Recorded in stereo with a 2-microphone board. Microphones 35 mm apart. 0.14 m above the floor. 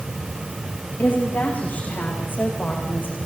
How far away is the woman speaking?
About 9 m.